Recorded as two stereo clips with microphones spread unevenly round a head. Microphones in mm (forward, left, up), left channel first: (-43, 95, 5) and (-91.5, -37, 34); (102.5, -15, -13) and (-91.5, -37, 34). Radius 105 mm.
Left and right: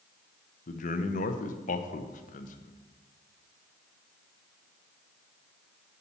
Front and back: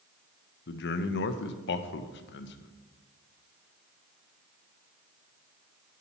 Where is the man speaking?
35° left, 0.6 m.